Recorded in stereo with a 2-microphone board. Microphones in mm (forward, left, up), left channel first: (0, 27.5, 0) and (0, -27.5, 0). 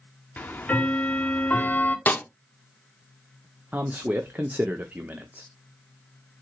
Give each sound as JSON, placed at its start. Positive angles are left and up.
{"t": 0.4, "sound": "ticking", "side_deg": 30, "distance_m": 0.7}
{"t": 2.1, "sound": "a snare drum", "side_deg": 30, "distance_m": 0.6}
{"t": 3.7, "sound": "a man speaking", "side_deg": -30, "distance_m": 0.6}